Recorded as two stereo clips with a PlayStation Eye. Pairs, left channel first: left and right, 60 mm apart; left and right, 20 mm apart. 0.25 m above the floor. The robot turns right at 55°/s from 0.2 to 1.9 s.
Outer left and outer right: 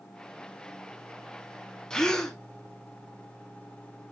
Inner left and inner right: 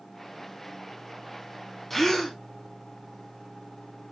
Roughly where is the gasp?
Centre.